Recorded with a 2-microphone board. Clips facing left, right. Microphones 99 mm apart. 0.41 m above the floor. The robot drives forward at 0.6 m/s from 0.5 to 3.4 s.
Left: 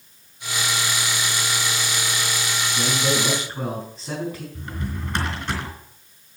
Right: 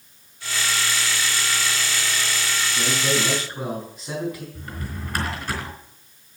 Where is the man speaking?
30° left (ahead or behind), 4.5 m.